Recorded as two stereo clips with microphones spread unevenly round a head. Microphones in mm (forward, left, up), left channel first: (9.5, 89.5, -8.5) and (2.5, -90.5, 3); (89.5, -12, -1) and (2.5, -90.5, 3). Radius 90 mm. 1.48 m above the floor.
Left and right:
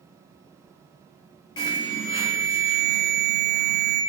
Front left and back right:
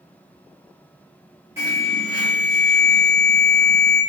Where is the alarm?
150° left, 1.0 m.